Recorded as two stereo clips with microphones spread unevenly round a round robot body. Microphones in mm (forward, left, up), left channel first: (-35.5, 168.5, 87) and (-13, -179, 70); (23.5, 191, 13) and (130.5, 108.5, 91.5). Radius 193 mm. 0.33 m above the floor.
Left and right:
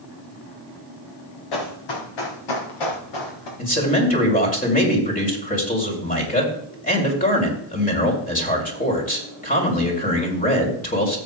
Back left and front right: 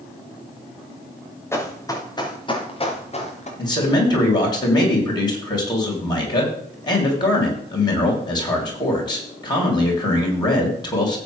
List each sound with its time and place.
1.5 s running footsteps: 70° left, 4 m; by 3.5 s 105° left, 3.5 m
3.6 s a man speaking: 160° left, 3 m